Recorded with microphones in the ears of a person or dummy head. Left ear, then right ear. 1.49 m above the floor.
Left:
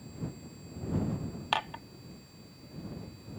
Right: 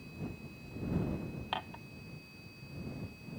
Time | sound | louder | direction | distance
1.5 | dishes clattering | left 8 dB | 40° left (ahead or behind) | ?